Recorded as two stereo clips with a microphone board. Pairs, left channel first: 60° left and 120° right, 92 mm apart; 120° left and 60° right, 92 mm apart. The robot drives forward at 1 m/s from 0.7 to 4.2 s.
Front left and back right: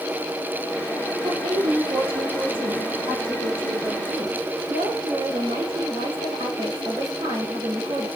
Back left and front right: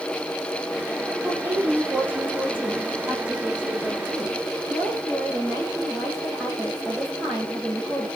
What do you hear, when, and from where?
1.2 s a woman speaking: 130° right, 8 m; by 8.1 s 140° right, 10 m